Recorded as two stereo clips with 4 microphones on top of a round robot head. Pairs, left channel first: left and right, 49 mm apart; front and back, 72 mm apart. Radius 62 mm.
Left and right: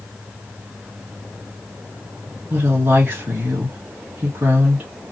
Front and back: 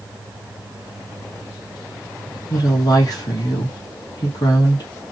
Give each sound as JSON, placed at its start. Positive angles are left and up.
{"t": 2.5, "sound": "a woman speaking", "azimuth_deg": -30, "distance_m": 1.3}